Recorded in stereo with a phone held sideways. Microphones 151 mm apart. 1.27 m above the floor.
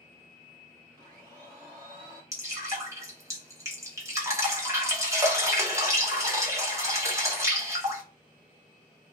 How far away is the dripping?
About 0.8 m.